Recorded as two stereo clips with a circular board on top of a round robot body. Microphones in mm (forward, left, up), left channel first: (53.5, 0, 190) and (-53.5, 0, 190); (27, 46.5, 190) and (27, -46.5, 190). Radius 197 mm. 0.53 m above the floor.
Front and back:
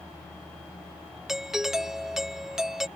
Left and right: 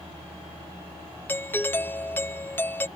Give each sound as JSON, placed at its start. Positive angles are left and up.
{"t": 1.3, "sound": "a doorbell", "azimuth_deg": 100}